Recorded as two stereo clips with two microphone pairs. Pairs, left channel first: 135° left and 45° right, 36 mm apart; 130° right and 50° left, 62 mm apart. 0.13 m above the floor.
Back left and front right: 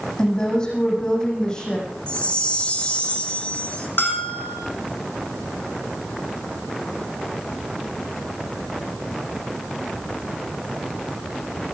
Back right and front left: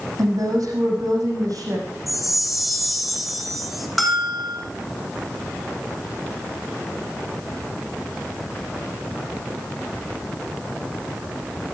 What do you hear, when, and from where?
0.2 s a woman speaking: 70° left, 6.5 m
2.1 s a chime: 140° left, 2.0 m
4.0 s a bell: 140° left, 3.5 m